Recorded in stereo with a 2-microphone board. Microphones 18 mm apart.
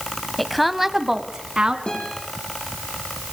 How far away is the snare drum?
I don't hear a snare drum.